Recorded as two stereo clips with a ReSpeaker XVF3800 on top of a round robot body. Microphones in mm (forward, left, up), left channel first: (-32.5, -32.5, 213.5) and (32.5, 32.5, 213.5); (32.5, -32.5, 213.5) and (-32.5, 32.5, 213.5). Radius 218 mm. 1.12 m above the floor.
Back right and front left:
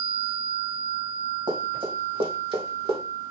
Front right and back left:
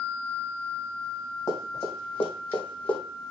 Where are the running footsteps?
20° left, 4 m; by 3.0 s 30° left, 3 m.